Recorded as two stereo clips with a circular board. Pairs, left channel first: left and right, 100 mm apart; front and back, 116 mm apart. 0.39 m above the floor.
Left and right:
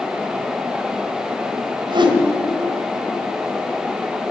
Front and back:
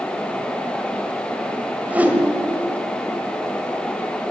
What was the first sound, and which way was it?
A whoosh, 105° right.